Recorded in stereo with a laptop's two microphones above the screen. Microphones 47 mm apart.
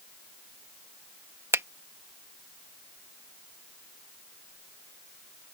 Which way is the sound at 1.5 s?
75° right (ahead or behind).